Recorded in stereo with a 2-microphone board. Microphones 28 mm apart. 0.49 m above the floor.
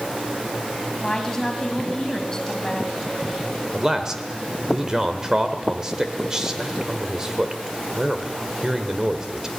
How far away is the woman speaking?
About 3 m.